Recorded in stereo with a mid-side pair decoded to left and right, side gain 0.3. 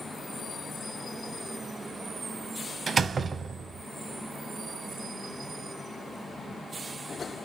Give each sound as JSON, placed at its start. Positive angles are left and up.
{"t": 2.9, "sound": "a door slam", "azimuth_deg": -65, "distance_m": 0.6}